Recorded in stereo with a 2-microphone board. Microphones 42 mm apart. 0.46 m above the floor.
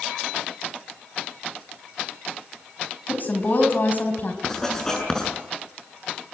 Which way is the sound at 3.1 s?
45° left (ahead or behind).